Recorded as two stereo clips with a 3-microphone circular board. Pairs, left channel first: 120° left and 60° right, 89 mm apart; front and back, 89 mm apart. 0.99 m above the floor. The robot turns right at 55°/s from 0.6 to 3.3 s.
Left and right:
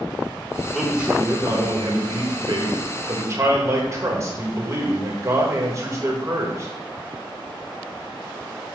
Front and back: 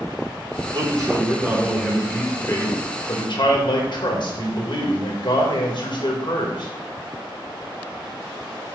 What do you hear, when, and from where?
0.7 s a man speaking: 150° right, 1.6 m; by 6.7 s 10° right, 1.6 m